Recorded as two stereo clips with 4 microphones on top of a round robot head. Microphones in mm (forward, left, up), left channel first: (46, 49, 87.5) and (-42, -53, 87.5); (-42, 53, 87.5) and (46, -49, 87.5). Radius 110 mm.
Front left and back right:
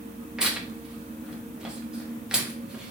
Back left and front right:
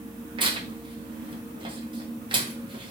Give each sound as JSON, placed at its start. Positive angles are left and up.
{"t": 0.4, "sound": "tearing paper", "azimuth_deg": -50, "distance_m": 1.0}